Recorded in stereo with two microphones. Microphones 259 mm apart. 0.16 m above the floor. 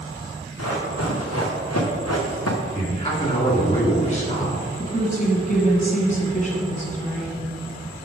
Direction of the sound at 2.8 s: 30° left (ahead or behind).